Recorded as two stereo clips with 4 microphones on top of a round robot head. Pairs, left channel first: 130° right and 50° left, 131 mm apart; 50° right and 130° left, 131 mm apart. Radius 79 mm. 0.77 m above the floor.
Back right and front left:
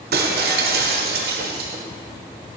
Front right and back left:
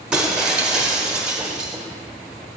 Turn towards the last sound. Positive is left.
turn(degrees=50)